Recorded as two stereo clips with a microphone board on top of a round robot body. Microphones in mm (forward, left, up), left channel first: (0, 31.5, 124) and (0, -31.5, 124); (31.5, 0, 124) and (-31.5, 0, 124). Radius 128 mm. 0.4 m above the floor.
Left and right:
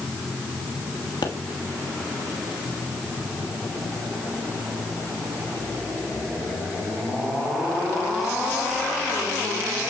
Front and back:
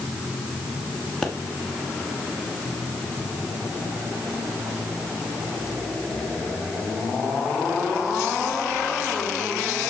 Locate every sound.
1.2 s a pop: 80° left, 1.2 m